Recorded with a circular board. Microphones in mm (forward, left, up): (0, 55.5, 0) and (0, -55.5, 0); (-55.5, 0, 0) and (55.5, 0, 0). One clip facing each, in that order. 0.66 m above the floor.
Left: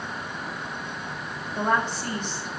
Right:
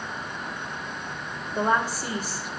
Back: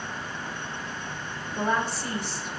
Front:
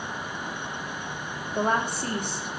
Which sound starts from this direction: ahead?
A woman speaking, at 1.6 s.